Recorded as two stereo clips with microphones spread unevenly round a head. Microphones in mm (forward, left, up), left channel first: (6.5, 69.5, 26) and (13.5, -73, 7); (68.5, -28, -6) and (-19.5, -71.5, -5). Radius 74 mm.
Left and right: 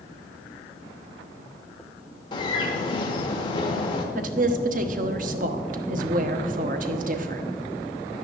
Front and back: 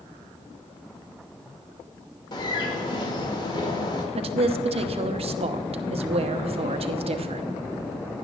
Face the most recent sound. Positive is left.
turn(degrees=-130)